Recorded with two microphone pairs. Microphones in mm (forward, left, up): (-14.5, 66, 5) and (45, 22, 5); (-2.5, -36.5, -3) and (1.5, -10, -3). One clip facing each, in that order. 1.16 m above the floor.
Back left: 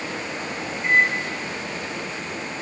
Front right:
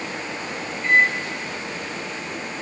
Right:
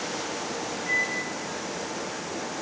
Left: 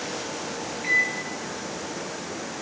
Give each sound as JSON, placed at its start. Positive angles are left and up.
{"t": 0.8, "sound": "a microwave", "azimuth_deg": 65, "distance_m": 6.5}